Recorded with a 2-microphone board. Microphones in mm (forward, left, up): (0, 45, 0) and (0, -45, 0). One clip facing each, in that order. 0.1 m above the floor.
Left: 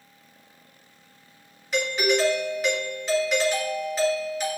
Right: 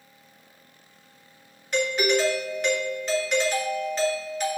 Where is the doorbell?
5° left (ahead or behind), 2.0 m.